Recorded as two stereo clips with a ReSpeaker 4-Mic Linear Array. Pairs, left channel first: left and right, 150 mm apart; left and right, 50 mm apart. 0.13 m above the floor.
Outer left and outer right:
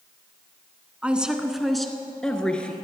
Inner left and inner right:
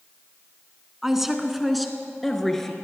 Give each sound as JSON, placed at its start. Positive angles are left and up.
{"t": 1.0, "sound": "a woman speaking", "side_deg": -10, "distance_m": 1.0}